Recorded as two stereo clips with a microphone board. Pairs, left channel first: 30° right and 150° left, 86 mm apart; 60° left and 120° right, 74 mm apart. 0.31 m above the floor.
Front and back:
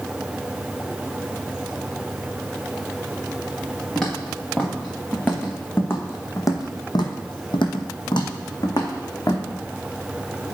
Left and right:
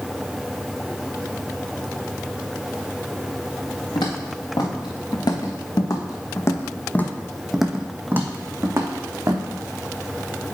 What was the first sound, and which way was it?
Footsteps, 55° left.